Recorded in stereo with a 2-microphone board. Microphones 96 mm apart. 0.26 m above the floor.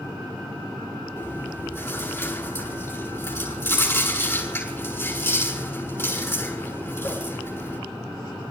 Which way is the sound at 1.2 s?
20° left (ahead or behind).